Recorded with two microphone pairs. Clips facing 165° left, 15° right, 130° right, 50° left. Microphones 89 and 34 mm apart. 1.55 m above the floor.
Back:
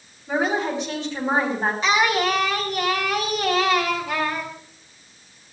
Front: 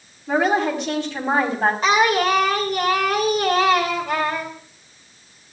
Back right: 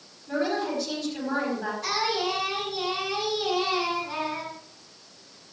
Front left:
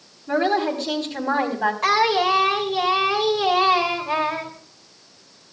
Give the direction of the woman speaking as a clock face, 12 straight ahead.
12 o'clock.